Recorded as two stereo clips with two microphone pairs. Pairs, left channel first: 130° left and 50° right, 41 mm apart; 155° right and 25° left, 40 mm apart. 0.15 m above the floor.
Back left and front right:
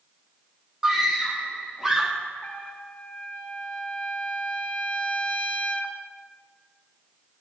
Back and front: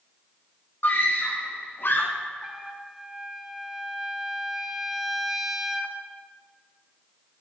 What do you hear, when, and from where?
0.8 s a scream: 130° right, 6.5 m
2.4 s a trumpet: 100° left, 1.3 m